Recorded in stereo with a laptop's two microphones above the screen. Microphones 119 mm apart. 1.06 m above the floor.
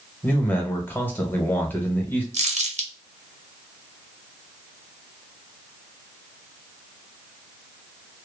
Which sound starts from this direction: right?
Crumpling, at 2.3 s.